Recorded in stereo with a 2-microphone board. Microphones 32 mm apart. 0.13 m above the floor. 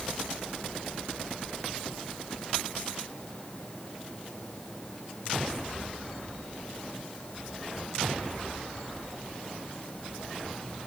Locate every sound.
Only background noise.